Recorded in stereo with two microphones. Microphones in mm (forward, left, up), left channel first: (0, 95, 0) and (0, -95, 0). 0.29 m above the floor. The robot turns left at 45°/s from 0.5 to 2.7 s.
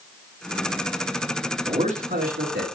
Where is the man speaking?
35° right, 3.5 m; by 2.6 s 80° right, 3.5 m.